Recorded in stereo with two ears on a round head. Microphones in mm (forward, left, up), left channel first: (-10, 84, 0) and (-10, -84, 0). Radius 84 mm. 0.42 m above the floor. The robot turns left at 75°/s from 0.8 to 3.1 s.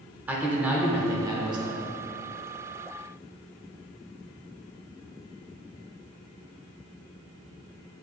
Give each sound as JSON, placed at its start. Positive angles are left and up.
{"t": 0.3, "sound": "a man speaking", "side_deg": -10, "distance_m": 1.0}